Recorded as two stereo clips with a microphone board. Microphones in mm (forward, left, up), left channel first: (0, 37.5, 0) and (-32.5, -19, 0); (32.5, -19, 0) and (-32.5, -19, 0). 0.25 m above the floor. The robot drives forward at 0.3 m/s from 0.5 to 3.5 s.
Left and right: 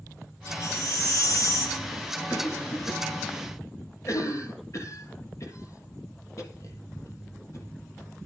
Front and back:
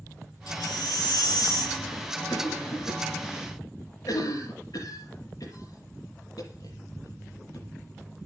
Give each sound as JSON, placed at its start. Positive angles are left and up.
{"t": 0.5, "sound": "a baby crying", "azimuth_deg": 20, "distance_m": 2.5}
{"t": 2.3, "sound": "a cough", "azimuth_deg": 20, "distance_m": 6.5}